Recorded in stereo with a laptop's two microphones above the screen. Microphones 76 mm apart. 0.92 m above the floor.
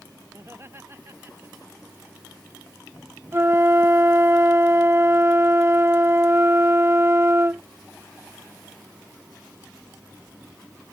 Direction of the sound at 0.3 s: 35° right (ahead or behind).